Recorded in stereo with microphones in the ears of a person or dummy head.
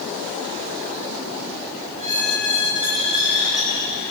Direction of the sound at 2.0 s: 35° right (ahead or behind).